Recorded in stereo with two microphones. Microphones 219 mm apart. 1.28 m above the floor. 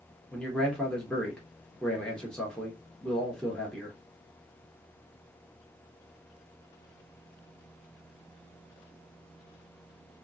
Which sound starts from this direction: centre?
A man speaking, at 0.3 s.